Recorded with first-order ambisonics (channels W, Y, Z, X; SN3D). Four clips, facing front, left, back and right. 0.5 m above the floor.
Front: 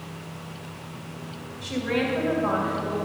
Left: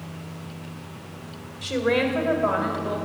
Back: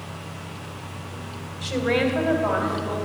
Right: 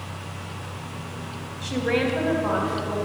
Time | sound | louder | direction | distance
1.6 | a woman speaking | left 1 dB, back 4 dB | 105° left | 1.6 m